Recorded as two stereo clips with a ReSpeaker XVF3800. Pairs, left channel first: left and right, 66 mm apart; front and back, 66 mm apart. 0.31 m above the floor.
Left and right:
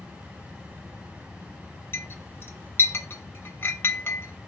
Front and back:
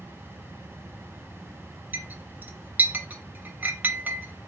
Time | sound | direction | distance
1.9 | a clink | 130° left | 0.6 m